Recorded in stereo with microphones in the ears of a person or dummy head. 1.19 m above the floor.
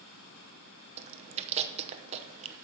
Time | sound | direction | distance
1.0 | chewing | 30° right (ahead or behind) | 0.8 m